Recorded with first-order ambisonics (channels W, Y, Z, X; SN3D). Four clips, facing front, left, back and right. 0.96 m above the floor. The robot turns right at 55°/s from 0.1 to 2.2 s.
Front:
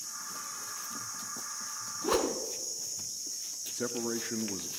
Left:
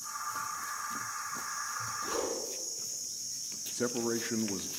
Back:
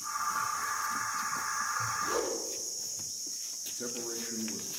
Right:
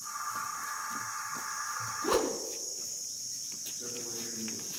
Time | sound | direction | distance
2.0 | a whoosh | 45° right | 2.5 m
3.7 | a man speaking | 65° left | 1.3 m